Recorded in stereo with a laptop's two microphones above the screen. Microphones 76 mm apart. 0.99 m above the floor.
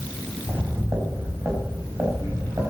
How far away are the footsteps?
About 4 m.